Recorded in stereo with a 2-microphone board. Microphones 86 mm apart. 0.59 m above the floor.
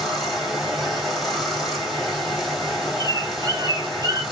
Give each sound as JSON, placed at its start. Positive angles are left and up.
{"t": 0.0, "sound": "running water", "side_deg": -5, "distance_m": 1.9}
{"t": 3.0, "sound": "a bird", "side_deg": -50, "distance_m": 0.7}